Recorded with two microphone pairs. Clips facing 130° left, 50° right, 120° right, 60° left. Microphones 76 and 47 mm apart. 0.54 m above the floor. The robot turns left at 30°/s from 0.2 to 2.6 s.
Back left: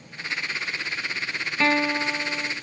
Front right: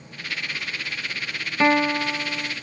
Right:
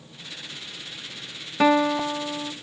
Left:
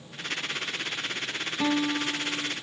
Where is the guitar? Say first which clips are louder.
Front right 3 dB, right 8 dB; 115° right, 0.6 m; by 2.5 s 140° right, 0.6 m.